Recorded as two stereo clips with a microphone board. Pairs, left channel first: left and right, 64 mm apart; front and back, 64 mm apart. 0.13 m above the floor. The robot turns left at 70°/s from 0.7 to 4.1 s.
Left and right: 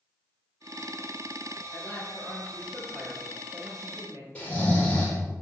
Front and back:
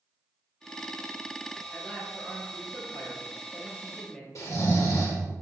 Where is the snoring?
20° left, 3 m.